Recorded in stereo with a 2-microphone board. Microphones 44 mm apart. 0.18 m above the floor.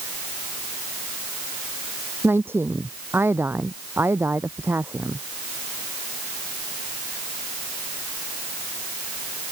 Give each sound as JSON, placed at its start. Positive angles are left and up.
{"t": 2.2, "sound": "a woman speaking", "side_deg": -60}